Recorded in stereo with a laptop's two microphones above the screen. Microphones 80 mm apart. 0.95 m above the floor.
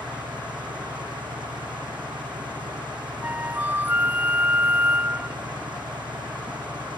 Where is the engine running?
75° right (ahead or behind).